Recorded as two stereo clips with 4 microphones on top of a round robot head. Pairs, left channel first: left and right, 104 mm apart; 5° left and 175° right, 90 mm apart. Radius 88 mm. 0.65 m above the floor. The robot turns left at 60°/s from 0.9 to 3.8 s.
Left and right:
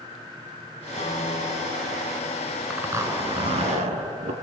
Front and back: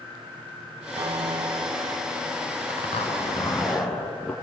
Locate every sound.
1.0 s a piano: 145° left, 3 m; by 2.6 s 45° left, 3 m
2.7 s a zipper: 10° right, 3 m; by 4.3 s 75° right, 3 m